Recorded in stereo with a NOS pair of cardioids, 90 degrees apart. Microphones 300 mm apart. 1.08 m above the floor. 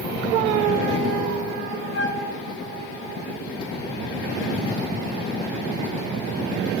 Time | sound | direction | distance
1.9 | a flute | 35° left | 1.0 m